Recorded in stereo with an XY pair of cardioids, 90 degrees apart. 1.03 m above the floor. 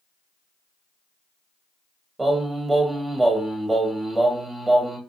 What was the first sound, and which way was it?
Singing, 20° right.